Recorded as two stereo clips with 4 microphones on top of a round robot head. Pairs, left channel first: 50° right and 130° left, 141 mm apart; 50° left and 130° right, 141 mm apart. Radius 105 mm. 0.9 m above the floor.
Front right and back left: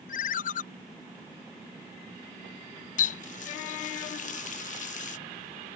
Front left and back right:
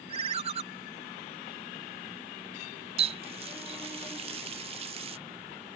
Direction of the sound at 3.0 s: 80° right.